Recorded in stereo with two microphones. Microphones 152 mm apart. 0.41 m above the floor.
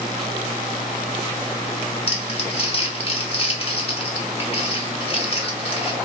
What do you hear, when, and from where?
2.1 s crumpling: 40° left (ahead or behind), 0.6 m